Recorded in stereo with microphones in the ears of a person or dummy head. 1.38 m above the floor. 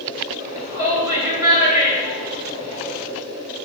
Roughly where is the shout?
Centre.